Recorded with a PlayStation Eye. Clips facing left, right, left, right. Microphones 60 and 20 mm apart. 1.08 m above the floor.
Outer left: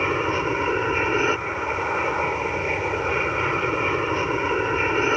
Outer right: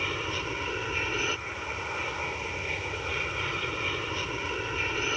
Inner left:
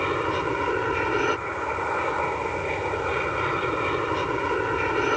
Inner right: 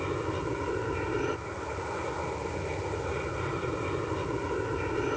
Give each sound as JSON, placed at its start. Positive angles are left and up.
{"t": 0.0, "sound": "an aircraft", "side_deg": 35}